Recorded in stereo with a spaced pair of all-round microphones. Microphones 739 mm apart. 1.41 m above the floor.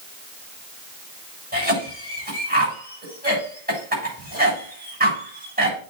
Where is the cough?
10° right (ahead or behind), 7 m.